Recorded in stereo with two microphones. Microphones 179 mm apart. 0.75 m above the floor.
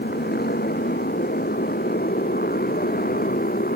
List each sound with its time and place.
0.0 s a motorcycle: 65° left (ahead or behind); by 3.8 s 60° left (ahead or behind)